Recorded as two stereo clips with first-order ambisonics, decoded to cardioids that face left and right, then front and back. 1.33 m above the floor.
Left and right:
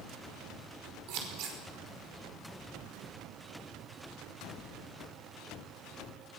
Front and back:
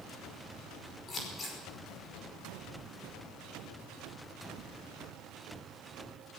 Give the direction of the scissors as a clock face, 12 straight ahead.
2 o'clock.